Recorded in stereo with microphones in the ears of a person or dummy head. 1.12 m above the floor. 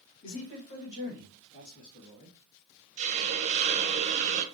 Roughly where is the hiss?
Right.